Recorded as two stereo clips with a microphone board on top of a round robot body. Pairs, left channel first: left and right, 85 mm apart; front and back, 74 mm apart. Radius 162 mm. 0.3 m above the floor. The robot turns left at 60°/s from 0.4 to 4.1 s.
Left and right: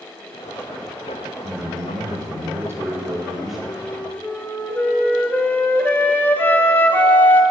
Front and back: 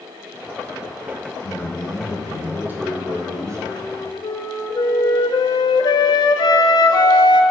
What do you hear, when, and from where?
1.4 s a man speaking: 50° right, 1.9 m; by 3.6 s straight behind, 1.9 m
3.7 s a flute: 45° left, 0.6 m; by 7.4 s 20° left, 0.6 m